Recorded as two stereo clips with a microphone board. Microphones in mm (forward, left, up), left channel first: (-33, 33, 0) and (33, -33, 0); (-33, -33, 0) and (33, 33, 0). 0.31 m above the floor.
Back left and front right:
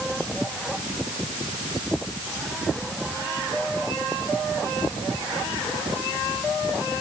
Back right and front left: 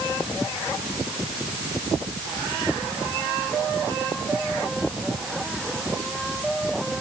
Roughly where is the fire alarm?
No fire alarm in this recording.